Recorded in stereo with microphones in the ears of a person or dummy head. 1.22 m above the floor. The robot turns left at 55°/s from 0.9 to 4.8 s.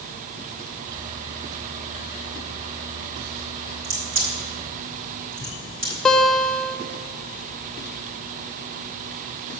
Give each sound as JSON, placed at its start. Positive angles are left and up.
{"t": 3.8, "sound": "a crack", "side_deg": -80, "distance_m": 5.5}
{"t": 6.0, "sound": "a guitar", "side_deg": 0, "distance_m": 1.0}